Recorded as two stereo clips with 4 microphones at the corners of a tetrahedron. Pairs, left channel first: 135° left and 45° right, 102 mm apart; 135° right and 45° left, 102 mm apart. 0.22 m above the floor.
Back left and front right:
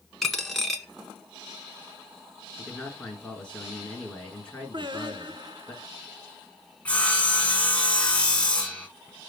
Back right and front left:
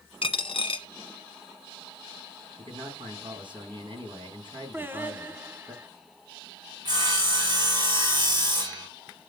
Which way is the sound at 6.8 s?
60° left.